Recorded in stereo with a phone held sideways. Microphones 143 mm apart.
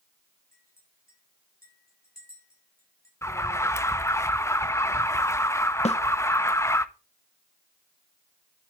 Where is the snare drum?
50° left (ahead or behind), 1.0 m.